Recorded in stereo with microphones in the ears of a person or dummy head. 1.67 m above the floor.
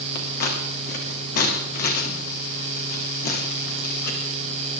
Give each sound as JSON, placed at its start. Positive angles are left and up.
{"t": 0.1, "sound": "scissors", "side_deg": 45, "distance_m": 2.5}